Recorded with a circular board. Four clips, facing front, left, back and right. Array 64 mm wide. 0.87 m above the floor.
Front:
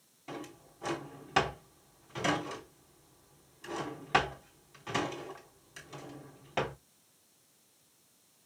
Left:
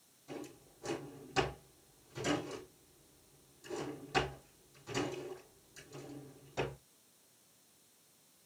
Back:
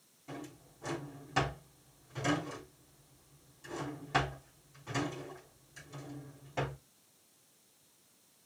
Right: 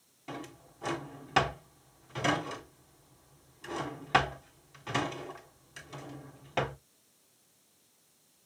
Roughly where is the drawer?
Ahead right.